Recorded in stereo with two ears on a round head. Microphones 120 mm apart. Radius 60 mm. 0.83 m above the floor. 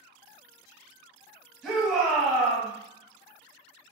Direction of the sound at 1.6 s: Centre (ahead or behind).